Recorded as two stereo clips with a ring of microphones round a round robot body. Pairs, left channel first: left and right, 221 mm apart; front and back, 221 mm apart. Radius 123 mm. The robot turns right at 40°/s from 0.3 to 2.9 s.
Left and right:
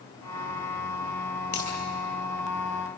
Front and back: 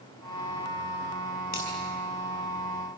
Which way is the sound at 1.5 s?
45° left.